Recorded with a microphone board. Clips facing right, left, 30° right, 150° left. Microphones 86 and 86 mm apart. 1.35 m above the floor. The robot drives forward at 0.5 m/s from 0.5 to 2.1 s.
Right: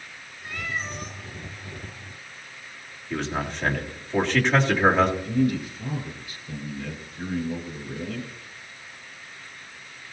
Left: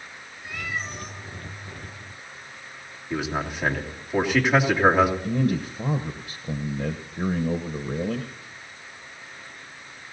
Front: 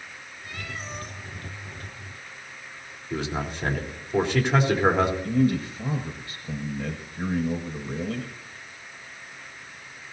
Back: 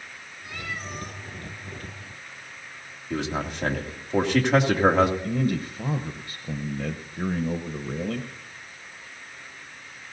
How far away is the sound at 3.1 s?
About 2.5 m.